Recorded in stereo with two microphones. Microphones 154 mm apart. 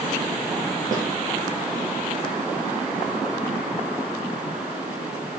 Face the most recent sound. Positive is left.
turn(degrees=-25)  # may be behind; listen again after turning